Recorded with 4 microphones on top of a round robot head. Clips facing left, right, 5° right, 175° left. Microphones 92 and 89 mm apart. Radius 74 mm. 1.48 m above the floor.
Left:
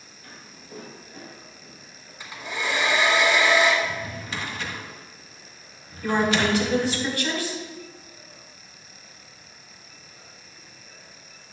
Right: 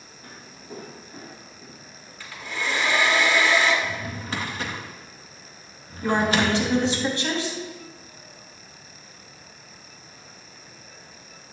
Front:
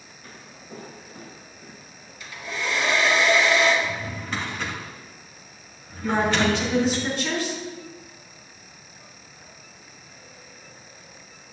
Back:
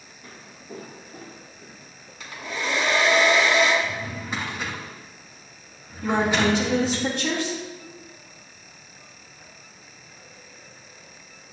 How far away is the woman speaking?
About 3 m.